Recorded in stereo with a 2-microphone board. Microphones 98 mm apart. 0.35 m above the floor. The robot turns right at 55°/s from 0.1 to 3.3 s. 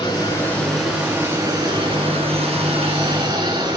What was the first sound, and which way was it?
Running water, 140° left.